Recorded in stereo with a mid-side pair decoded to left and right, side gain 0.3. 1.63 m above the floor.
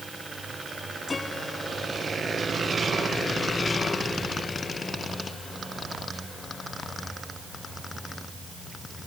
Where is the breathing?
No breathing in this recording.